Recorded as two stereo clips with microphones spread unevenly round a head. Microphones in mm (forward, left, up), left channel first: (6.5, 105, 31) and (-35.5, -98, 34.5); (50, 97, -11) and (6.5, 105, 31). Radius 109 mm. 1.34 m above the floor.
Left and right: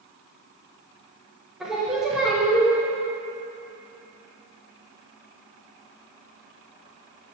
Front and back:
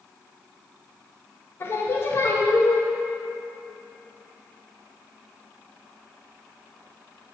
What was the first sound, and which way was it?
Singing, 15° right.